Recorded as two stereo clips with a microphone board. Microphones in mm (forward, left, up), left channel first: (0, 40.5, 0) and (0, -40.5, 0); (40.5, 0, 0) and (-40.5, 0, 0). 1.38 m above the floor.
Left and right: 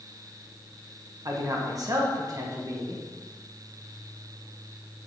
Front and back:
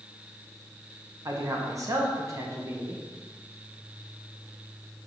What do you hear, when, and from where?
1.2 s a man speaking: 130° right, 1.1 m